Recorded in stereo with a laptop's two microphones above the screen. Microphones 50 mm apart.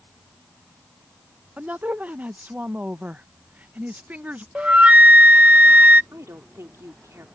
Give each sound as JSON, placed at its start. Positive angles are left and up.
{"t": 1.6, "sound": "a woman speaking", "side_deg": -30}
{"t": 4.5, "sound": "a flute", "side_deg": -25}
{"t": 6.1, "sound": "a woman speaking", "side_deg": -75}